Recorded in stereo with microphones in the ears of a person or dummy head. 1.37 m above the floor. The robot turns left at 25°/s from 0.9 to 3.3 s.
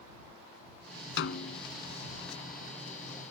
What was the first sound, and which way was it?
A snare drum, 70° left (ahead or behind).